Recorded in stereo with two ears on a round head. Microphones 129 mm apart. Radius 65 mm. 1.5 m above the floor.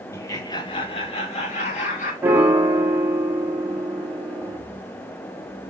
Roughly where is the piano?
Centre.